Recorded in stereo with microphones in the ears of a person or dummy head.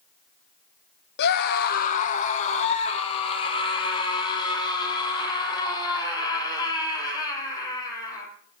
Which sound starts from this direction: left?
A scream, at 1.2 s.